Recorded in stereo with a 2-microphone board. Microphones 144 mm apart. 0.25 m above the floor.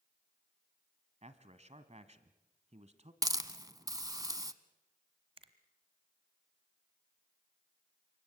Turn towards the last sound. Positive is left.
turn(degrees=-40)  # may be behind; listen again after turning